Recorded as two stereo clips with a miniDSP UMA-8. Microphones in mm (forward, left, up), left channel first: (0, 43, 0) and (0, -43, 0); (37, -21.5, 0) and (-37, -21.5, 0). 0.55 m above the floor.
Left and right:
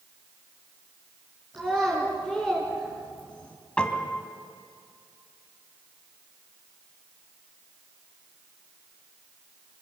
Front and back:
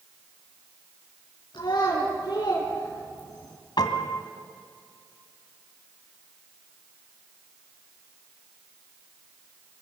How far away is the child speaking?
About 4.5 m.